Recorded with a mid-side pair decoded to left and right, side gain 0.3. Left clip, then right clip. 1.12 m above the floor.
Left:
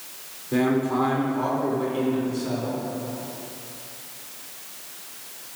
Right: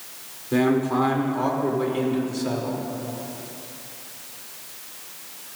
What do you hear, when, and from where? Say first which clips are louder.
0.5 s a man speaking: right 2 dB; 25° right, 2.5 m; by 2.8 s 60° right, 3 m